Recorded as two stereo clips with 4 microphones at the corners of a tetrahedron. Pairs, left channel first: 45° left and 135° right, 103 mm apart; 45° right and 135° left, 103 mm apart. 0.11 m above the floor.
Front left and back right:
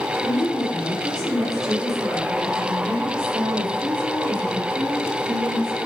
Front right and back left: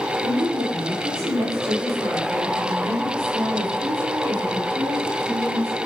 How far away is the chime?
I don't hear a chime.